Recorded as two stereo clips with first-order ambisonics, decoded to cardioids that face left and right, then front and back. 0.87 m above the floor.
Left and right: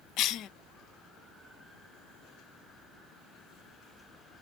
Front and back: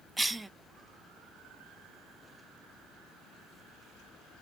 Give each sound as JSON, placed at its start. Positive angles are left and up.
{"t": 0.2, "sound": "a cough", "azimuth_deg": 100, "distance_m": 0.5}